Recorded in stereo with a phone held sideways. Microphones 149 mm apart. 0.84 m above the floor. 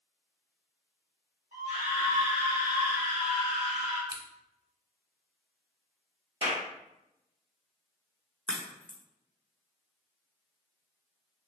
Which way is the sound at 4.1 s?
20° right (ahead or behind).